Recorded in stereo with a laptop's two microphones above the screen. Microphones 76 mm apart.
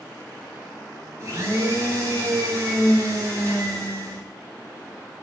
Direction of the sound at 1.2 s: 40° right (ahead or behind).